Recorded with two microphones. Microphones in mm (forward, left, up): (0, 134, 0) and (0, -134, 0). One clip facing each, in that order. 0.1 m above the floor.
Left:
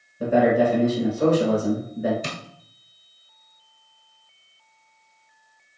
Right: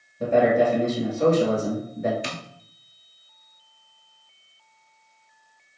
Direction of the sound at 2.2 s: 40° left (ahead or behind).